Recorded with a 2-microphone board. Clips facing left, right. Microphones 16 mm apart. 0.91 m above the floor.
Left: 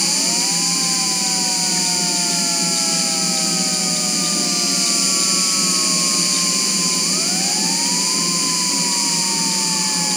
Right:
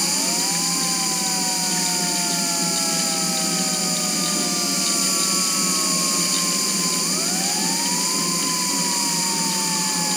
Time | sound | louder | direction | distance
0.0 | an insect | left 3 dB | 45° left (ahead or behind) | 0.8 m